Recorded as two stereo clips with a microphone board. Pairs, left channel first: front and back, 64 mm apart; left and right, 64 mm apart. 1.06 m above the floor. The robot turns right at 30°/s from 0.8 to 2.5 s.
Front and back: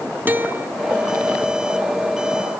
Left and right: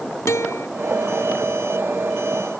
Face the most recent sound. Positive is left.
turn(degrees=175)